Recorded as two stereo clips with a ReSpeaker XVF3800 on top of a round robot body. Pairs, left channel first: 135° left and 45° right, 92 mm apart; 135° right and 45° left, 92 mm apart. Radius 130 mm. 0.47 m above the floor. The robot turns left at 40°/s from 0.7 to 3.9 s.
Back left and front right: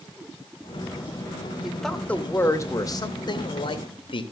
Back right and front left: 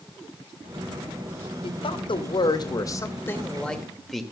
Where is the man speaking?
130° right, 2.5 m; by 4.2 s 135° left, 2.5 m.